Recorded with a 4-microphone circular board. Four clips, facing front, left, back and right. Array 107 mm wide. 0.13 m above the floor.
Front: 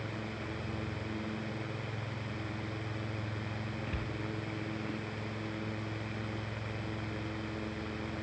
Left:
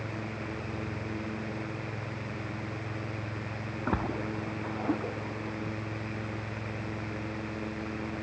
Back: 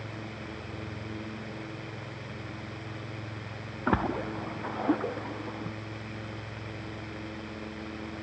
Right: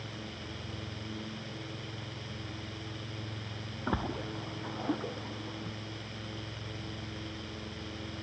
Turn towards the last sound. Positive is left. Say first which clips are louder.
# left 3 dB, back 11 dB
turn(degrees=170)